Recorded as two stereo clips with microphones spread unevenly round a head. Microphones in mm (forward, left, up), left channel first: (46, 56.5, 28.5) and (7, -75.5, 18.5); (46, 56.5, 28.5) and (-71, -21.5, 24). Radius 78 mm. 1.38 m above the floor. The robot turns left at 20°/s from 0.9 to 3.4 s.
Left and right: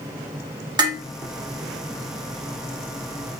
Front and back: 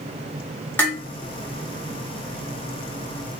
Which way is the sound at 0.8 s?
45° right.